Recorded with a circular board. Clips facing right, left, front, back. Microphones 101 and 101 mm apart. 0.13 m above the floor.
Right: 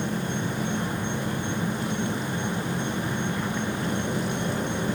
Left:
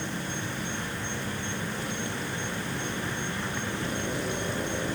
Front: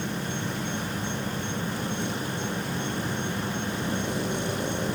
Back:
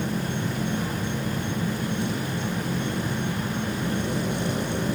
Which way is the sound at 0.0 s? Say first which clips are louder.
Right 6 dB, back 3 dB; 130° right.